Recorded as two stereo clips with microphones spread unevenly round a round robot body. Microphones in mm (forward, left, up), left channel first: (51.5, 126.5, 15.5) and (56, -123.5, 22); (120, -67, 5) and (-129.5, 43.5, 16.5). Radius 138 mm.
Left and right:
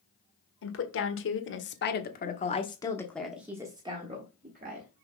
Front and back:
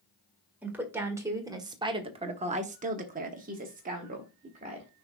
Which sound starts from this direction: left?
A woman speaking, at 0.6 s.